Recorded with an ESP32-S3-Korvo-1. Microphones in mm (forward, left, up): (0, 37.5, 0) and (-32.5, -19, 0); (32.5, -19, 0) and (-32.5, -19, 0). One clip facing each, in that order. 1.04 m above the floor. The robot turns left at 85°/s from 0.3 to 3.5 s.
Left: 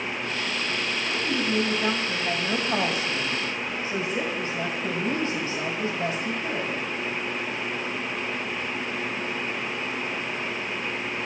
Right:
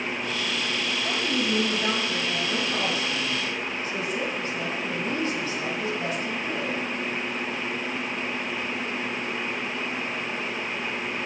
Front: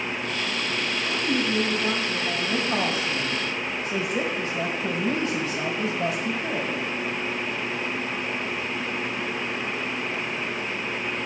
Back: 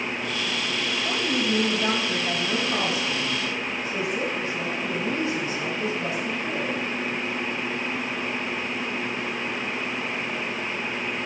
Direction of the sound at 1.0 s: 145° right.